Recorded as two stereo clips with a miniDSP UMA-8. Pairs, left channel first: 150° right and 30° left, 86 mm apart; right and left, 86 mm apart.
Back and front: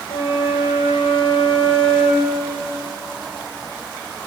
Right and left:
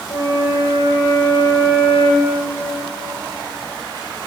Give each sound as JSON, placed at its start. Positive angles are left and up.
{"t": 0.1, "sound": "a flute", "azimuth_deg": -135, "distance_m": 1.9}